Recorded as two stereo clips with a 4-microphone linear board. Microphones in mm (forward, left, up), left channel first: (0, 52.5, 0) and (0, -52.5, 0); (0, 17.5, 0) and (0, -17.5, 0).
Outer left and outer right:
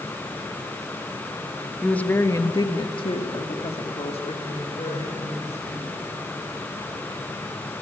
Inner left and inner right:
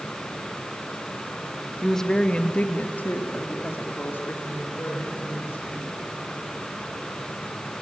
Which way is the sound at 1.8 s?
5° left (ahead or behind).